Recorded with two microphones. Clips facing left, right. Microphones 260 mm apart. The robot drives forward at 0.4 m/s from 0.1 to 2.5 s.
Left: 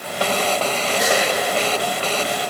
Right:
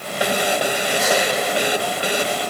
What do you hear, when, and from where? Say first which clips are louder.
1.0 s a gasp: even; 65° left (ahead or behind), 2.0 m